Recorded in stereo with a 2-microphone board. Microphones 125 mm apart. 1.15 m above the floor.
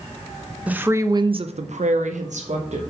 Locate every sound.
0.7 s a woman speaking: 10° right (ahead or behind), 0.8 m; by 2.8 s 60° right (ahead or behind), 1.1 m